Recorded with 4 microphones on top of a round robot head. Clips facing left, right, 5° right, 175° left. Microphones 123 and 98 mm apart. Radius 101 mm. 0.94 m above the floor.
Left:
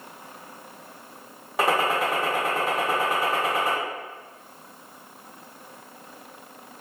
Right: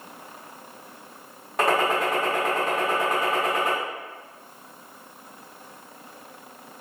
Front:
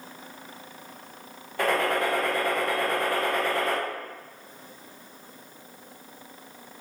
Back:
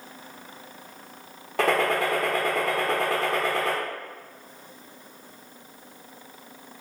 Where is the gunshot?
175° left, 0.8 m.